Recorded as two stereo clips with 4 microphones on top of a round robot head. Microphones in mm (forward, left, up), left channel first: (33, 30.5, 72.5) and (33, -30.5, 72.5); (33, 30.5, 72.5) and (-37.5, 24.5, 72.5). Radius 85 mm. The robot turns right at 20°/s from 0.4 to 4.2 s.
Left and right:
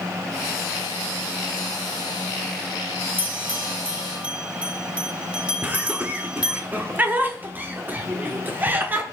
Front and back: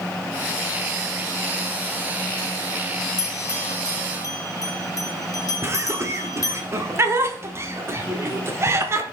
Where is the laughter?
140° right, 1.6 m.